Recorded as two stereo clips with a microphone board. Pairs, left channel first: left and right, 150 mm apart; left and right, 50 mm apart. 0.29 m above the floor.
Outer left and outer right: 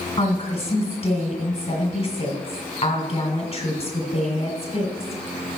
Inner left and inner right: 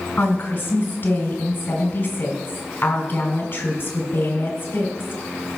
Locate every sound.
0.2 s a woman speaking: 40° left (ahead or behind), 2.0 m